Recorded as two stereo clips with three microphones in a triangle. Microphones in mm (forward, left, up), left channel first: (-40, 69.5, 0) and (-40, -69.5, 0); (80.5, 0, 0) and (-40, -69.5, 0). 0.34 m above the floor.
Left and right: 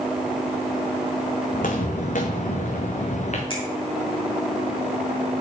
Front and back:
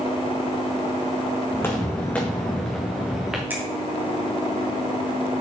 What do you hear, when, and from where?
1.5 s footsteps: 100° left, 1.6 m; by 3.4 s 125° left, 2 m
3.5 s a finger snap: 135° left, 2.5 m